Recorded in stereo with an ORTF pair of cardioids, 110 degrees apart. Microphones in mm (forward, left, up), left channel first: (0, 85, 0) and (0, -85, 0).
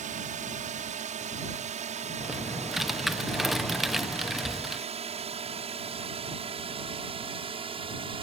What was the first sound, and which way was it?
A drone, 50° right.